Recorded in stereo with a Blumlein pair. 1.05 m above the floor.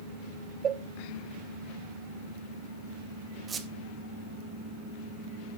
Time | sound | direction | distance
0.6 | a cowbell | 25° right | 0.7 m
3.5 | a squeak | 15° right | 1.3 m